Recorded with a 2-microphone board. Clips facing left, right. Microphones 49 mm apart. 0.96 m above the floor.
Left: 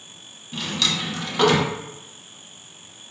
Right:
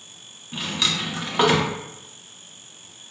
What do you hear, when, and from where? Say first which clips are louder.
0.5 s a drawer: even; 20° right (ahead or behind), 0.5 m